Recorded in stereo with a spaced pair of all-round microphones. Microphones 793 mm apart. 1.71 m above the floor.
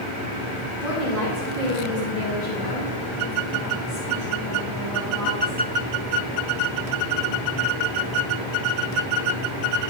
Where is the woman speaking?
85° left, 3.5 m; by 5.6 s 25° left (ahead or behind), 4 m.